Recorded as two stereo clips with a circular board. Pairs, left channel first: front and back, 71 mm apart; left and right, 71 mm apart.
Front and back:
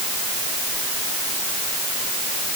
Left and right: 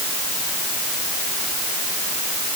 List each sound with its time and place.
Only background noise.